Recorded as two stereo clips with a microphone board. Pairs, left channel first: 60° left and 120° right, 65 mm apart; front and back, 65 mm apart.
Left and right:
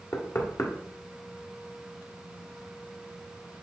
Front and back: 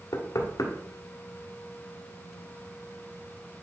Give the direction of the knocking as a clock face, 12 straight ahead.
11 o'clock.